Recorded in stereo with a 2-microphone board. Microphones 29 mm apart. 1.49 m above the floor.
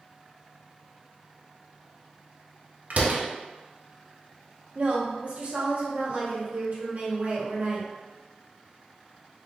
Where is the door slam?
55° right (ahead or behind), 0.6 m.